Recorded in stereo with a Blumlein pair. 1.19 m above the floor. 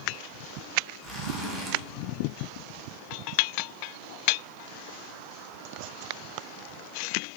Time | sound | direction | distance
1.0 | a zipper | 5° right | 0.6 m